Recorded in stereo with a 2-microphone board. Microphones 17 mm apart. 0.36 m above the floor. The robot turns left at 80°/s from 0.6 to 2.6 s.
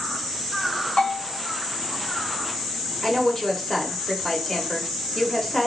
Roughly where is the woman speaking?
Left.